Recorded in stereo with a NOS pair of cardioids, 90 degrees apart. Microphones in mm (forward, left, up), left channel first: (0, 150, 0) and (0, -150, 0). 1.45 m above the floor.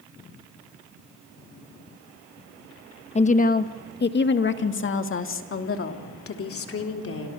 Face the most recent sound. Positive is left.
turn(degrees=50)